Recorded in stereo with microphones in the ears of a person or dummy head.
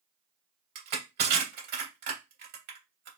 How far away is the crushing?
About 2.5 m.